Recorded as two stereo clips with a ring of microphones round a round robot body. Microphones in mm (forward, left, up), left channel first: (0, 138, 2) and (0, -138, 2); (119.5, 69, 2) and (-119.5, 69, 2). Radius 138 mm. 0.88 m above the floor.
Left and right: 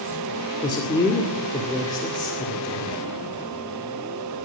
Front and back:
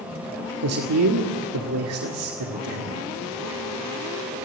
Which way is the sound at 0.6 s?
165° left.